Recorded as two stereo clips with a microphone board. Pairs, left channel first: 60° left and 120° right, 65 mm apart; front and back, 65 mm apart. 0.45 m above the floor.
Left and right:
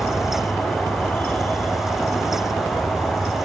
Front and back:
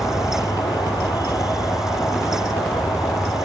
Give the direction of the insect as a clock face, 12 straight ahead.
12 o'clock.